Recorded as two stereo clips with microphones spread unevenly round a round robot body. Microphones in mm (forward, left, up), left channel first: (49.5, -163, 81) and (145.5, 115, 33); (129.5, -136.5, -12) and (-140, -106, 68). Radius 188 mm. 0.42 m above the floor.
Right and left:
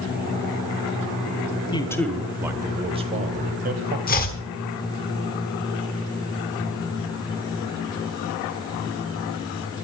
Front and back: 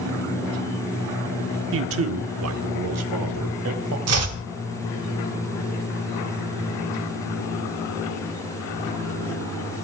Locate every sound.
1.7 s a man speaking: 175° left, 0.9 m; by 4.0 s 125° left, 1.9 m
4.1 s chopping: 170° right, 1.5 m